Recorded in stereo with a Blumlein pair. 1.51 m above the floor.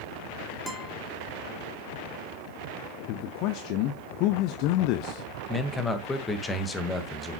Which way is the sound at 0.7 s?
5° right.